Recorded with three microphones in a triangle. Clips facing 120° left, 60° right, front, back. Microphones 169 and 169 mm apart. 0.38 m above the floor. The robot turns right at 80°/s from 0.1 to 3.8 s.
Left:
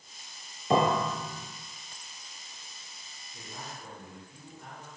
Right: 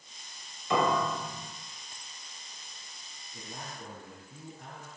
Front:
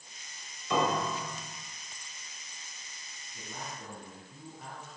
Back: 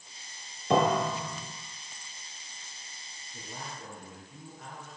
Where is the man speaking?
125° right, 5 m; by 5.0 s 85° right, 5 m.